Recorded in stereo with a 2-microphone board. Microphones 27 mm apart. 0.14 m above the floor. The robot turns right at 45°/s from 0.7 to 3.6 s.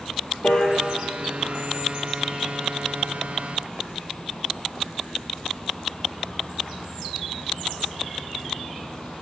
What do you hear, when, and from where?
0.4 s a piano: 70° left (ahead or behind), 0.6 m; by 0.8 s 75° left (ahead or behind), 0.6 m